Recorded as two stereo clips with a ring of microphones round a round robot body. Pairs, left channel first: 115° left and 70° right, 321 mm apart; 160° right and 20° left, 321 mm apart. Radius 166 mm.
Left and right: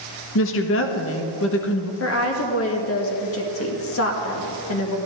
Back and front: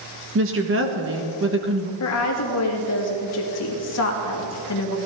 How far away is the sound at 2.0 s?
About 1.9 m.